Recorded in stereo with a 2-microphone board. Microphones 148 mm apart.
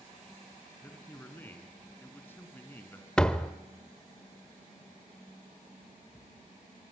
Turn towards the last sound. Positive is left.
turn(degrees=5)  # may be behind; listen again after turning